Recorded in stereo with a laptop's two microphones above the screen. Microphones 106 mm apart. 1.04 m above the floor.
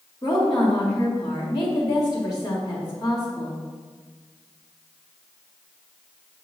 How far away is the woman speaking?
About 2 m.